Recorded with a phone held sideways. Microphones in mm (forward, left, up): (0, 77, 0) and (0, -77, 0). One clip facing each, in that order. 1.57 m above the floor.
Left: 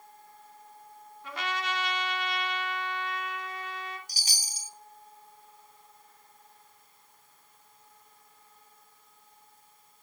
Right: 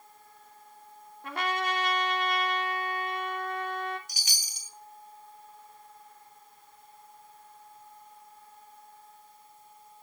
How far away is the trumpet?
About 2.5 m.